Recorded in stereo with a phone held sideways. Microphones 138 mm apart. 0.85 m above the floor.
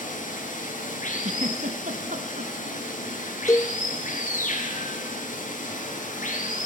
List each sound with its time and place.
0.0 s running water: 70° left (ahead or behind), 9.5 m
1.2 s a giggle: 65° right (ahead or behind), 1.5 m
3.5 s a cowbell: 25° left (ahead or behind), 0.5 m